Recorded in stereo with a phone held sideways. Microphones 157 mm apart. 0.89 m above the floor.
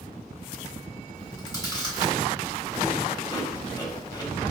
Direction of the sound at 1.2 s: 25° left (ahead or behind).